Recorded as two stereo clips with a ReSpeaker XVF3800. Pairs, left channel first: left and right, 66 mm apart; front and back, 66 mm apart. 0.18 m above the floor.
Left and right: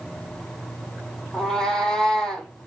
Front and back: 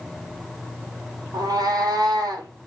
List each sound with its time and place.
1.3 s a cat meowing: 170° left, 0.8 m